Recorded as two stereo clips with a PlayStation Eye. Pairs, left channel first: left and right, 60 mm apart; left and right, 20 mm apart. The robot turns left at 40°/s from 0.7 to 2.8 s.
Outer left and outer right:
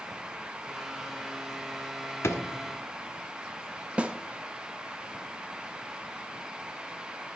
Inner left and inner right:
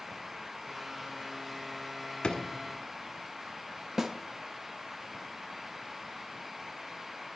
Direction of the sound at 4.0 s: 20° right (ahead or behind).